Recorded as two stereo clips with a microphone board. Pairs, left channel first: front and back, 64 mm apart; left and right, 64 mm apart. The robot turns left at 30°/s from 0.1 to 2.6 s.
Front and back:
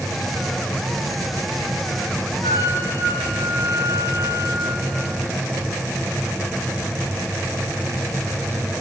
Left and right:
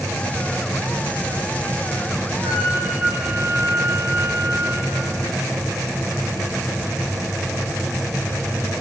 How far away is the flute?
About 3.5 m.